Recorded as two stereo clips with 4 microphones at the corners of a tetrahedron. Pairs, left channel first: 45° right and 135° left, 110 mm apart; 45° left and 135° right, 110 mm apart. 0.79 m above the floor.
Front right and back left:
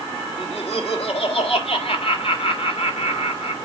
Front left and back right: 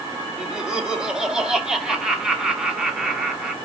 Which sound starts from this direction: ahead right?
Laughter, at 0.4 s.